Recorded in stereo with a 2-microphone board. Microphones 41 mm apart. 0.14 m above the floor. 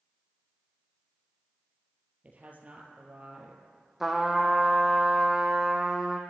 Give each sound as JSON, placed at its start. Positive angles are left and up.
{"t": 2.2, "sound": "a woman speaking", "side_deg": -35, "distance_m": 3.0}
{"t": 4.0, "sound": "a trumpet", "side_deg": -5, "distance_m": 1.6}